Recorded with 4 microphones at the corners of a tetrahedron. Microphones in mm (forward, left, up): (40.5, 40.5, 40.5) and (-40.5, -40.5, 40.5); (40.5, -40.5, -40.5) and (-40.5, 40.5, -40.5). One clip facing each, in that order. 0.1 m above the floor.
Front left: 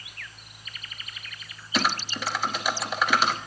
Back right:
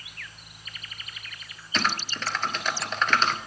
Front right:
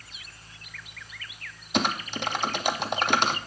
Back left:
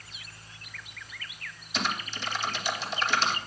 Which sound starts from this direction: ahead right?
Typing on a keyboard, at 1.7 s.